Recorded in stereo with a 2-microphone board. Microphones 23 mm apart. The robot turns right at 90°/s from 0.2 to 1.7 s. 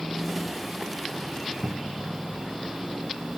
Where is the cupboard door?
70° right (ahead or behind); by 2.1 s 75° right (ahead or behind).